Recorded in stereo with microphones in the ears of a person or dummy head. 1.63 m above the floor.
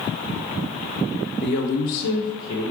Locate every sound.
1.4 s a woman speaking: 60° left (ahead or behind), 0.8 m; by 2.7 s 20° left (ahead or behind), 1.0 m